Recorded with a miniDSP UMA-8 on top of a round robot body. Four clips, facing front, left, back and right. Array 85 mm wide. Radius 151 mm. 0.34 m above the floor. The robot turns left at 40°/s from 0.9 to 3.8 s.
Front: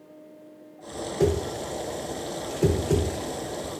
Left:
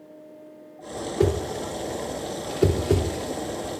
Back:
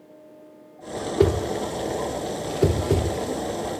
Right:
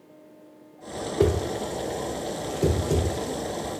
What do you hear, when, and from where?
1.2 s a whoosh: 170° right, 0.6 m; by 3.8 s 85° left, 0.6 m